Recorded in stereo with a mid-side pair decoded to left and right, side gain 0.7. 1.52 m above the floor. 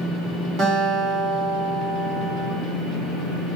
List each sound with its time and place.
0.6 s a guitar: 55° right, 1.0 m